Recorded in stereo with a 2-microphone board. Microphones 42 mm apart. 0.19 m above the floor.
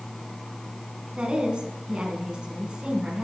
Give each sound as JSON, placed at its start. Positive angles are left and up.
{"t": 1.2, "sound": "a woman speaking", "side_deg": -25, "distance_m": 2.0}